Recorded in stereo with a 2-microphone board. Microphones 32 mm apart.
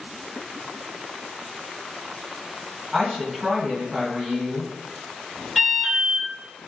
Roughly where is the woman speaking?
Centre.